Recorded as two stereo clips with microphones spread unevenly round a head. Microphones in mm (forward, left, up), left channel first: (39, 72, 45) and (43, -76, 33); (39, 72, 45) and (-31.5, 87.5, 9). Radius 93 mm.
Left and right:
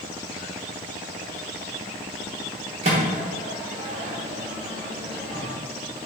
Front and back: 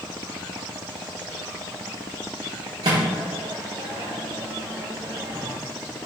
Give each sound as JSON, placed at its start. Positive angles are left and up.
{"t": 2.8, "sound": "a microwave", "azimuth_deg": -145, "distance_m": 0.9}